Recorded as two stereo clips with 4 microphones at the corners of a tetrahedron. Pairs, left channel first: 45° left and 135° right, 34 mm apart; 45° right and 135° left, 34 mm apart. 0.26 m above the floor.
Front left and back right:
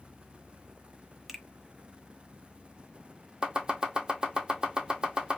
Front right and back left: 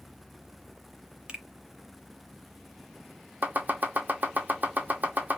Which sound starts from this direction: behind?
Chopping, at 3.4 s.